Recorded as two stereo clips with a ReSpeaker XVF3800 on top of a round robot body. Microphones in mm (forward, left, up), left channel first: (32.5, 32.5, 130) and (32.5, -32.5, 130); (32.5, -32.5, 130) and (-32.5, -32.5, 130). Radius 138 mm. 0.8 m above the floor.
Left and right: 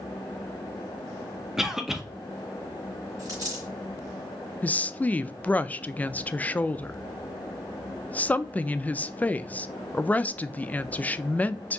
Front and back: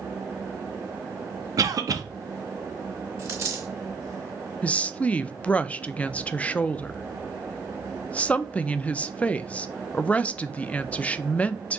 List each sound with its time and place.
1.6 s a cough: 175° right, 0.8 m
3.2 s a dropped coin: 135° right, 2.5 m
4.6 s a woman speaking: 45° left, 0.5 m